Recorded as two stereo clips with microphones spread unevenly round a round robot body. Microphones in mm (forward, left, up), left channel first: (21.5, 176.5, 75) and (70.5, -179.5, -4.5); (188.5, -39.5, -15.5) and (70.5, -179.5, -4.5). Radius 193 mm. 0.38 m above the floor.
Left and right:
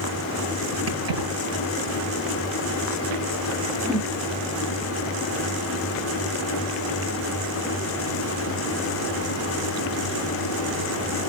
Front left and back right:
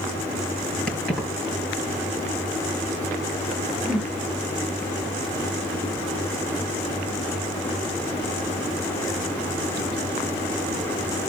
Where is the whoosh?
45° right, 1.1 m.